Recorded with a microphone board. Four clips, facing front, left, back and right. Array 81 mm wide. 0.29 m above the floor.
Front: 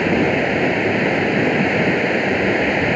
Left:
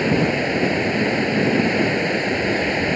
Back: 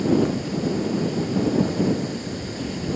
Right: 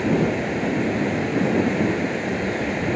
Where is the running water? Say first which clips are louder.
Left 2 dB, front 4 dB; 15° left.